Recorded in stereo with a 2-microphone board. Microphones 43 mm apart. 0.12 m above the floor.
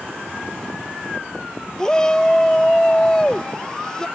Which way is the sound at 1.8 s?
15° left (ahead or behind).